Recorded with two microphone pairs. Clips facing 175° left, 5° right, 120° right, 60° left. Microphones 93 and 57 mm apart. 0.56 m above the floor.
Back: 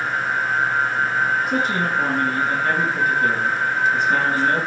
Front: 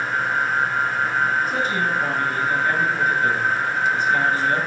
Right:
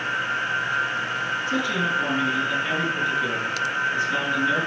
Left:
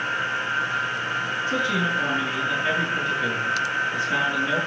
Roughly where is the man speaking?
Behind left.